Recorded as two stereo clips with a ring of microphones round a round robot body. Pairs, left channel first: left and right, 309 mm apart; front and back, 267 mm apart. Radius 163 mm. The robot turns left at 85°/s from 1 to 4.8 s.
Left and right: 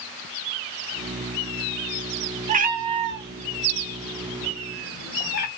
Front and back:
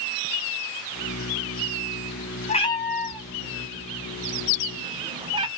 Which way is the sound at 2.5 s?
40° right.